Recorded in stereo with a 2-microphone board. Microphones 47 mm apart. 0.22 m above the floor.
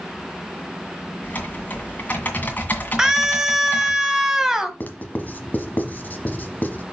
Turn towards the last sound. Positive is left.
turn(degrees=40)  # may be behind; listen again after turning